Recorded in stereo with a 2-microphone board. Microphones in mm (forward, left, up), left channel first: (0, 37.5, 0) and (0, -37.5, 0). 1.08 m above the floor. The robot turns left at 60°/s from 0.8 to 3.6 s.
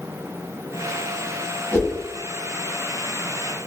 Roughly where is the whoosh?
Left.